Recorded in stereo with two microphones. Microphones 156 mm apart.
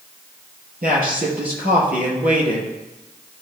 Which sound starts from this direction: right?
A man speaking, at 0.8 s.